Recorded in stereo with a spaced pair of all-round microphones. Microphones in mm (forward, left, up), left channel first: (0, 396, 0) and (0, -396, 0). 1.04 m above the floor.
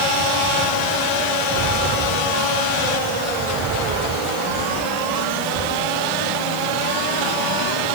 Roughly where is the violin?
I don't hear a violin.